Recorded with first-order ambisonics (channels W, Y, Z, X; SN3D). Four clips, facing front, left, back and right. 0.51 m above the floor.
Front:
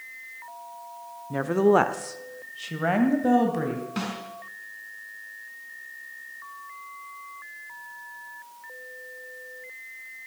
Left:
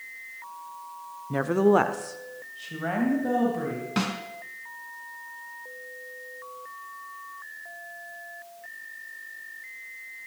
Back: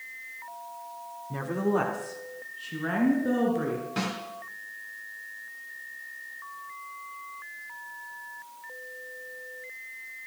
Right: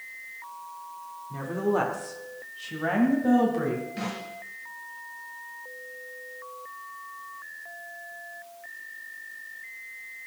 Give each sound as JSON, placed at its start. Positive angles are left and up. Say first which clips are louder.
{"t": 1.3, "sound": "a woman speaking", "louder": "left 6 dB, front 8 dB", "azimuth_deg": 75, "distance_m": 1.0}
{"t": 4.0, "sound": "a snare drum", "louder": "left 5 dB, even", "azimuth_deg": 85, "distance_m": 3.0}